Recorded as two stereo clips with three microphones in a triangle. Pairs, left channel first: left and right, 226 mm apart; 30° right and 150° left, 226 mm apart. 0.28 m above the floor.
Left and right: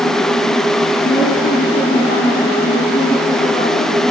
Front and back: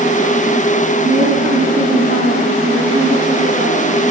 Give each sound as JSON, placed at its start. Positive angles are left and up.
{"t": 1.0, "sound": "a woman speaking", "azimuth_deg": 120, "distance_m": 2.5}